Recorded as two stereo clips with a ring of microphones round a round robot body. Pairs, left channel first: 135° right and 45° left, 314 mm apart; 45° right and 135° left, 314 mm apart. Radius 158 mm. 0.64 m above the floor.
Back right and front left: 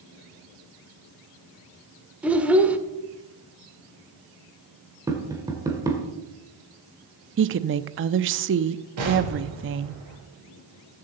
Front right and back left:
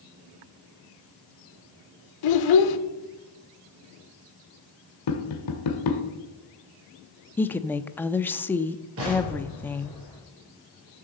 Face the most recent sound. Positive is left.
turn(degrees=85)